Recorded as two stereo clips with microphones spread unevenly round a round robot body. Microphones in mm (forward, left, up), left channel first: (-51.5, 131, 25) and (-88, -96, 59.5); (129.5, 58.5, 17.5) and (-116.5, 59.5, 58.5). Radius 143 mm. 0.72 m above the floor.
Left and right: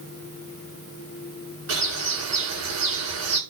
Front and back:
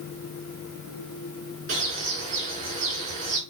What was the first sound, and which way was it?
A bird, 115° right.